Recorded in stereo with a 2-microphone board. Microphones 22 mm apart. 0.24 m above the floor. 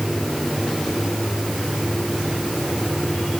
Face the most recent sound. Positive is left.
No sound to turn to.